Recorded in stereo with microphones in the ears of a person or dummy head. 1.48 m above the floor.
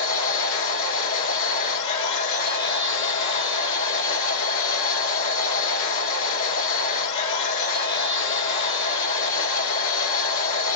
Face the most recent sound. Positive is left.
turn(degrees=65)  # may be behind; listen again after turning